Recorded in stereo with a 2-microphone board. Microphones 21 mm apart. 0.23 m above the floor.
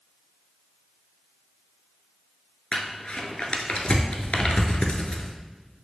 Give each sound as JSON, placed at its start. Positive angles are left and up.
{"t": 2.7, "sound": "crumpling", "side_deg": 70, "distance_m": 0.6}